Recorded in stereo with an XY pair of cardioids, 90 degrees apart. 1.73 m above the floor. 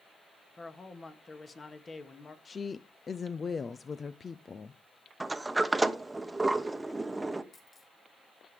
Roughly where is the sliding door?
Ahead.